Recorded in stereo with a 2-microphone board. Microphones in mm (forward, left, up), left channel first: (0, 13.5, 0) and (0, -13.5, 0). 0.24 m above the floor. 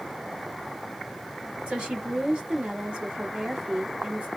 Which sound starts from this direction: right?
A woman speaking, at 1.7 s.